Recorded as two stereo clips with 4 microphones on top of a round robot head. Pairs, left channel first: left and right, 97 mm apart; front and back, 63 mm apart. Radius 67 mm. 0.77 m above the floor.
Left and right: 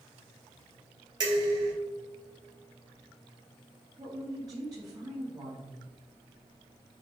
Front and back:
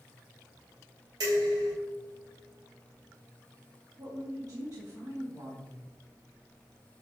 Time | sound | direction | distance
1.2 | dishes clattering | 135° right | 2.5 m
4.0 | a woman speaking | 140° right | 2 m